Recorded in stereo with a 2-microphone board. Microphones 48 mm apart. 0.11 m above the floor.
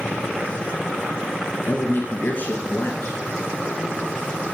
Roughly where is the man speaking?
Left.